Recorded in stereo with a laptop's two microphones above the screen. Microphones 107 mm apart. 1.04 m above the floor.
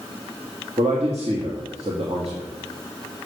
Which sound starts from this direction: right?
A man speaking, at 0.8 s.